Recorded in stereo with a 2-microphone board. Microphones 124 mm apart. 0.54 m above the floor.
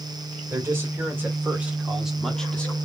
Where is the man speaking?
20° right (ahead or behind), 2 m; by 2.8 s 15° left (ahead or behind), 1.0 m.